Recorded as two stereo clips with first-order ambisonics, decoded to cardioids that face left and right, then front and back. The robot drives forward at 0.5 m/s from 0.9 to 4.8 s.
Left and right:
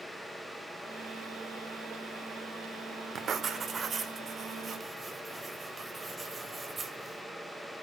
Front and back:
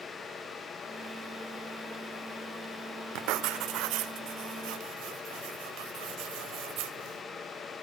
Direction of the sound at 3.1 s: 150° right.